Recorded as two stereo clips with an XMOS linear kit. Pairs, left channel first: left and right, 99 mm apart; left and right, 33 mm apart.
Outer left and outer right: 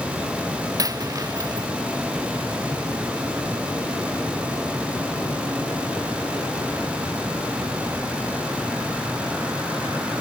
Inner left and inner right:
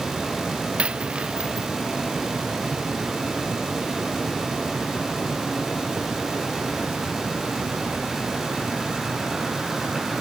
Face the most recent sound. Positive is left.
turn(degrees=-35)  # may be behind; listen again after turning